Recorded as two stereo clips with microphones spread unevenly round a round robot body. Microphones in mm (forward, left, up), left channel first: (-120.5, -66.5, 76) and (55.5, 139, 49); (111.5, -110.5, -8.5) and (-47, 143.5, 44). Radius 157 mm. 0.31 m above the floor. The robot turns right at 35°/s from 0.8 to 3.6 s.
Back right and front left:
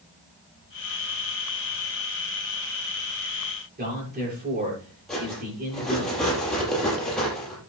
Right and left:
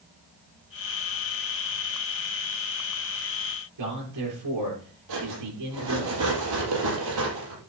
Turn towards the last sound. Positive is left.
turn(degrees=140)